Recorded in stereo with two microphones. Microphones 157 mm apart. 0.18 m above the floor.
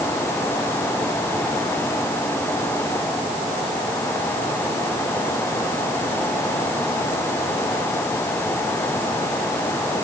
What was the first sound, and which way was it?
Only background noise.